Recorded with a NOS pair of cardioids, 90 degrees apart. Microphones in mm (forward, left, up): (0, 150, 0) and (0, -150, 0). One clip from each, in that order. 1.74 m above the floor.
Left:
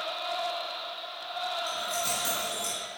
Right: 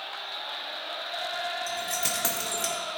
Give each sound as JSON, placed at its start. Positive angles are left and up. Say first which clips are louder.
{"t": 1.7, "sound": "keys jangling", "louder": "right 1 dB", "azimuth_deg": -65, "distance_m": 4.5}